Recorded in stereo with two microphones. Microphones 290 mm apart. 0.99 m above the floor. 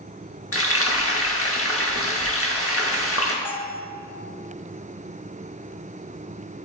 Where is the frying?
50° left (ahead or behind), 0.9 m.